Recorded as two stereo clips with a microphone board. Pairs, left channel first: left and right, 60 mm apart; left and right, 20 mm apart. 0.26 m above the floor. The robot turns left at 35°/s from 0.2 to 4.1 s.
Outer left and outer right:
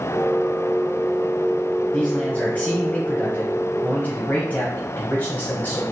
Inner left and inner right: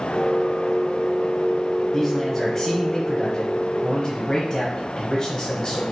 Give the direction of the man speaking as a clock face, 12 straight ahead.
7 o'clock.